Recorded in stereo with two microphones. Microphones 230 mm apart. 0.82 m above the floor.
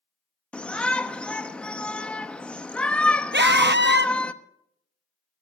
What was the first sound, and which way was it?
A shout, 5° left (ahead or behind).